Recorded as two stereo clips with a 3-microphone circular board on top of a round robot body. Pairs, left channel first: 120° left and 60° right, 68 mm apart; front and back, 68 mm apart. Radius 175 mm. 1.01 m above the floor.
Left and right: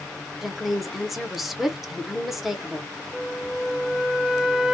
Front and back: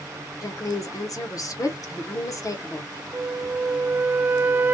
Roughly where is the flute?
Behind right.